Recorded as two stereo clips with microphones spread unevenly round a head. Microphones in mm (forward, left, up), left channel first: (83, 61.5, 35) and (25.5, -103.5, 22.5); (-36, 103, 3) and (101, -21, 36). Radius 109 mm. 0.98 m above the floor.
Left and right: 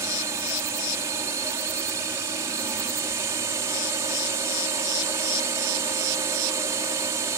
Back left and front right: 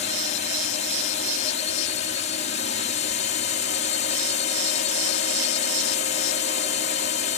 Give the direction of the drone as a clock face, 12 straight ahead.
6 o'clock.